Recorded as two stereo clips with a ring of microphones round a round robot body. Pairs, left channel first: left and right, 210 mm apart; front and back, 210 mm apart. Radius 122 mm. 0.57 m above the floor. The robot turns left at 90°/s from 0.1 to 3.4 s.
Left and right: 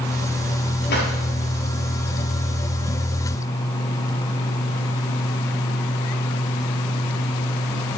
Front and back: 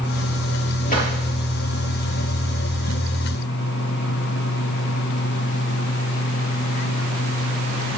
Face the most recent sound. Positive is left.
turn(degrees=-175)